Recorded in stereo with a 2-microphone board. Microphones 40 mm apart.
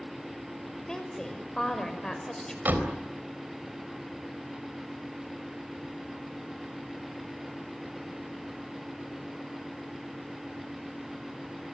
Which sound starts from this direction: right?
A door slam, at 2.6 s.